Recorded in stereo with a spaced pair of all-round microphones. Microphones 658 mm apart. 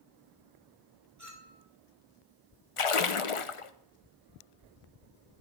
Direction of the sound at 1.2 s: 25° right (ahead or behind).